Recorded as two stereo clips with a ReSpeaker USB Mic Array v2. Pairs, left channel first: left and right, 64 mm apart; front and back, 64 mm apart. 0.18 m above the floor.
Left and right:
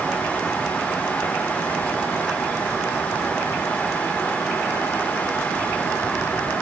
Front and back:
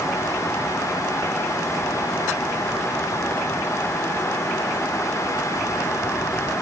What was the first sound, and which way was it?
Only background noise.